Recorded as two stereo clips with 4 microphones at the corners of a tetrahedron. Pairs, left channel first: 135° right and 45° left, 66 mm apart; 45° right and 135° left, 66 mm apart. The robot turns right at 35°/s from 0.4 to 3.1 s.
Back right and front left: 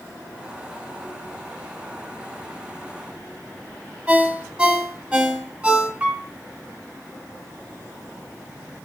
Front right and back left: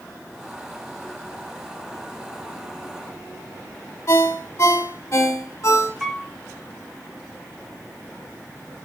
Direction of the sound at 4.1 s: 25° right.